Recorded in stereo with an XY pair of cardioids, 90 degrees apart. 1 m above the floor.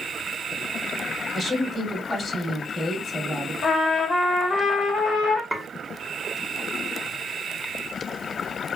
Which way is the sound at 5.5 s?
Straight ahead.